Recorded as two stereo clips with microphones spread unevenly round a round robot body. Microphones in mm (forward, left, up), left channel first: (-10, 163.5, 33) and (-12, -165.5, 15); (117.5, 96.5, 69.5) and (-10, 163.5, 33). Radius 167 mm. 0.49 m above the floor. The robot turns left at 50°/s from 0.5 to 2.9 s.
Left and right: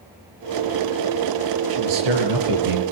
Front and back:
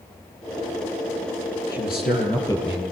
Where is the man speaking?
70° right, 9.5 m; by 2.8 s 125° right, 9.5 m.